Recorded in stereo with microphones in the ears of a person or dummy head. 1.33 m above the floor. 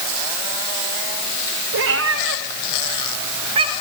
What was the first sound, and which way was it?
A cat meowing, 70° right (ahead or behind).